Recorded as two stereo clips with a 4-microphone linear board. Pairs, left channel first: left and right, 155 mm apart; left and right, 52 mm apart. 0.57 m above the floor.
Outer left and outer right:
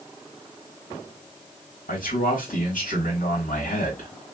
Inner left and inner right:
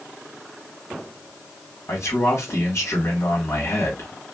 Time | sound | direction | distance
1.9 | a man speaking | 55° left (ahead or behind) | 1.6 m